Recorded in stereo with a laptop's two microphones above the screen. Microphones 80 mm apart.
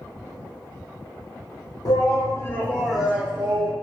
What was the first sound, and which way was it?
A shout, 55° left (ahead or behind).